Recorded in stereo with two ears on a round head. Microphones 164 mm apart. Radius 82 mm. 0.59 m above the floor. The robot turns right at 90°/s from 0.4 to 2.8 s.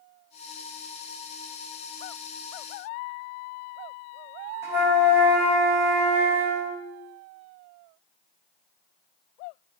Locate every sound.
4.6 s a flute: 15° right (ahead or behind), 4 m